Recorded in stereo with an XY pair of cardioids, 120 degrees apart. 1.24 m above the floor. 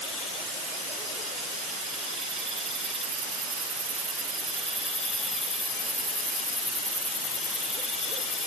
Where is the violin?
No violin in this recording.